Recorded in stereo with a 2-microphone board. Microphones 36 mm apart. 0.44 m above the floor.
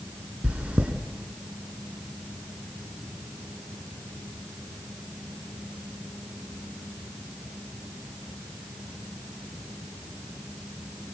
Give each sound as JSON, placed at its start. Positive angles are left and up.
{"t": 0.4, "sound": "chewing", "side_deg": -45, "distance_m": 2.0}